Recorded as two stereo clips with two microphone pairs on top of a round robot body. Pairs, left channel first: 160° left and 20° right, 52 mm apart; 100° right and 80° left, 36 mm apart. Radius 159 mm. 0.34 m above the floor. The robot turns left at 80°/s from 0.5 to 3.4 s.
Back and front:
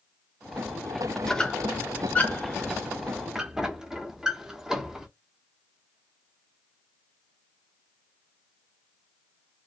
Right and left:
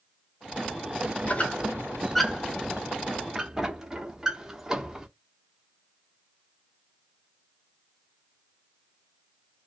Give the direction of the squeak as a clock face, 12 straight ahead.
4 o'clock.